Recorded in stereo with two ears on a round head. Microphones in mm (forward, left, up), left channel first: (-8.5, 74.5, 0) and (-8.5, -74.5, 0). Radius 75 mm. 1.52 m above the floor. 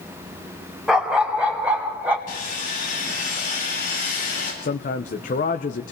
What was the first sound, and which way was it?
A dog barking, 5° right (ahead or behind).